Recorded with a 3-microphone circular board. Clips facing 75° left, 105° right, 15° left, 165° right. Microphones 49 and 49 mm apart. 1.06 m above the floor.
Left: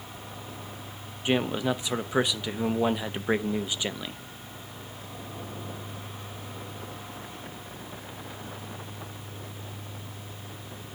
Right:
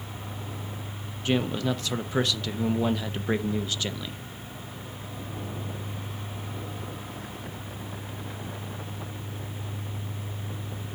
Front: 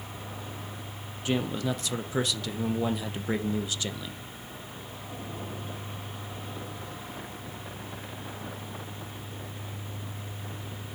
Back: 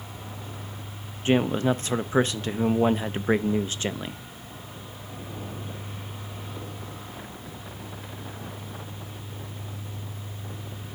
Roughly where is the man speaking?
Behind left.